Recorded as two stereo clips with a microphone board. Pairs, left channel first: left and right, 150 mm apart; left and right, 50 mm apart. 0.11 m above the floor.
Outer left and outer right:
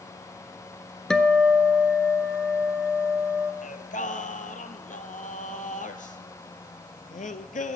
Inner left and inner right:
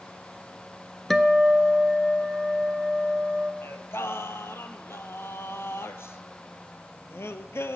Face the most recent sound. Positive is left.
turn(degrees=60)  # may be behind; listen again after turning